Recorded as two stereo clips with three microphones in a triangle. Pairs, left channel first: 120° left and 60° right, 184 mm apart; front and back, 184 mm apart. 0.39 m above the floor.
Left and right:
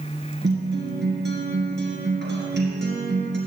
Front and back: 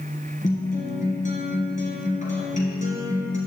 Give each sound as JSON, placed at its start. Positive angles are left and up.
{"t": 0.4, "sound": "a guitar", "azimuth_deg": -45, "distance_m": 2.0}